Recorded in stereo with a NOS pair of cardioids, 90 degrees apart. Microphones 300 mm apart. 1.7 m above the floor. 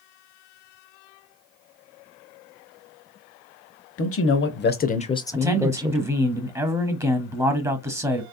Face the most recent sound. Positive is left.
turn(degrees=-10)